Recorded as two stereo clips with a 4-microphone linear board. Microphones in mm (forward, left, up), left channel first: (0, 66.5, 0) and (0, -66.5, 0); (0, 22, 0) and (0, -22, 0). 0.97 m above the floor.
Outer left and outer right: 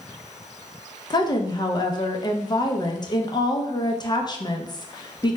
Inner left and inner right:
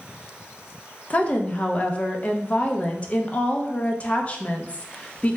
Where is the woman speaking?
30° left (ahead or behind), 0.6 m.